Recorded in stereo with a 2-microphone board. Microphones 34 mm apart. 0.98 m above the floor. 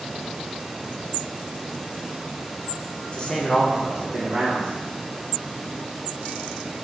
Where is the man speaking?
30° left (ahead or behind), 0.7 m; by 4.7 s 35° right (ahead or behind), 1.4 m.